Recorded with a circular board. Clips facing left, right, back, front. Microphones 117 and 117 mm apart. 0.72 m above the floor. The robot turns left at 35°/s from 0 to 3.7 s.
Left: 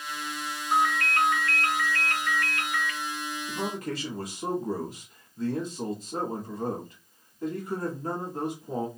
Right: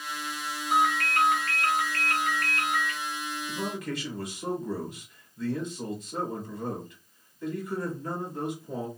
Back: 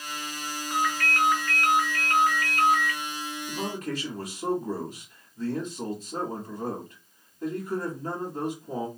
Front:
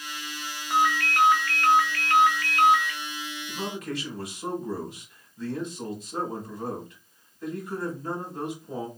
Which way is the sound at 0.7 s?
70° right.